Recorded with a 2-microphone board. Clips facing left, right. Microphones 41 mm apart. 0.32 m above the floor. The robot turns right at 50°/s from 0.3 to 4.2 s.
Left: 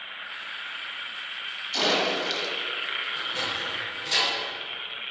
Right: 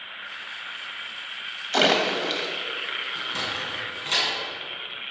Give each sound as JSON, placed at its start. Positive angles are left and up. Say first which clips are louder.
{"t": 1.7, "sound": "a splash", "louder": "right 4 dB", "side_deg": -55, "distance_m": 0.9}
{"t": 3.1, "sound": "a sliding door", "louder": "even", "side_deg": -70, "distance_m": 3.0}